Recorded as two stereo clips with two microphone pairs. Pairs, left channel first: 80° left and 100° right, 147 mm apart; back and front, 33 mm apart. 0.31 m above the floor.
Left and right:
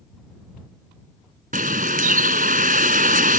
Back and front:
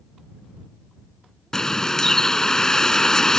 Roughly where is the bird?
Right.